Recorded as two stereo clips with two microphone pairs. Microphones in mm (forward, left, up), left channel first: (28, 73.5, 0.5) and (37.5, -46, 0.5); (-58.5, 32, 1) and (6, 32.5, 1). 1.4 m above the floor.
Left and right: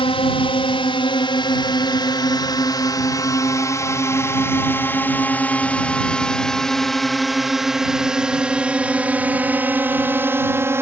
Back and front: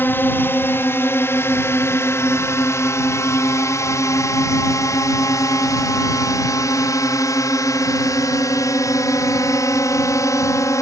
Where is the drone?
130° left; by 10.8 s 155° right.